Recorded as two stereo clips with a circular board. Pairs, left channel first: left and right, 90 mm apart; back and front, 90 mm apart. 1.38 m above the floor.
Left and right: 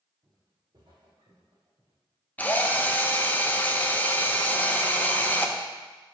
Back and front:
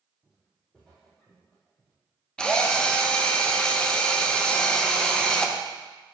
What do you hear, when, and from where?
0.2 s footsteps: 85° right, 2.0 m; by 1.9 s 110° right, 3.5 m
2.4 s a drill: 120° left, 0.5 m